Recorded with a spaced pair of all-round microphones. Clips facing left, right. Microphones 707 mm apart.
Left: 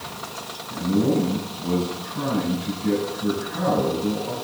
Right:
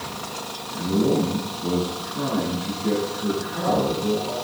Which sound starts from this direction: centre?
A man speaking, at 0.7 s.